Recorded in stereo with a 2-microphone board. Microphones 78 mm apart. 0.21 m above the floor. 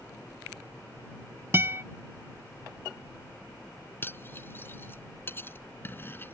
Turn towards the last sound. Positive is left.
turn(degrees=30)  # may be behind; listen again after turning